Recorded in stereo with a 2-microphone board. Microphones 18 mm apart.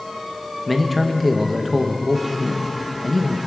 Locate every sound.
0.7 s a man speaking: centre (ahead or behind), 1.3 m